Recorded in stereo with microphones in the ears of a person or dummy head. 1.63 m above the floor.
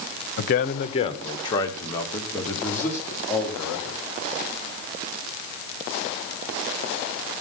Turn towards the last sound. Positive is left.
turn(degrees=5)  # may be behind; listen again after turning